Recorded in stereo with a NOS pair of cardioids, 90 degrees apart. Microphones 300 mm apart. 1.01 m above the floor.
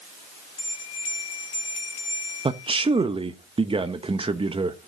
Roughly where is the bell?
Ahead left.